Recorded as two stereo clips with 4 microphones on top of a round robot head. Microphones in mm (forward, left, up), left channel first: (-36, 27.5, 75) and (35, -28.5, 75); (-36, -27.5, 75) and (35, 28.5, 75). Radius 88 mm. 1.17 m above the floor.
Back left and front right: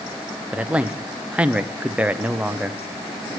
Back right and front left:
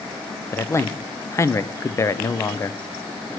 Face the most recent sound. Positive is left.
turn(degrees=-110)